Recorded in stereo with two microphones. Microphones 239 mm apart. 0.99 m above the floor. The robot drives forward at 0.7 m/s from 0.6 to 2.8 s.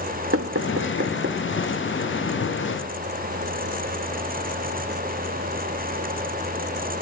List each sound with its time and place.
0.3 s knocking: 70° right (ahead or behind), 1.2 m; by 1.4 s 50° right (ahead or behind), 1.5 m